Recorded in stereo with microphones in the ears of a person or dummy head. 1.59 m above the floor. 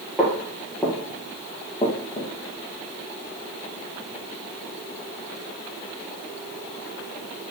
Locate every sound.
0.2 s footsteps: 5° right (ahead or behind), 2.5 m; by 2.3 s 25° left (ahead or behind), 3 m